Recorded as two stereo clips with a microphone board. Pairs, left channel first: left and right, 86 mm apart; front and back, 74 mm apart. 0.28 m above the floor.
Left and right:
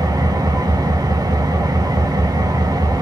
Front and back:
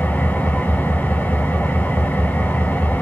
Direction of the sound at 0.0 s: 65° right.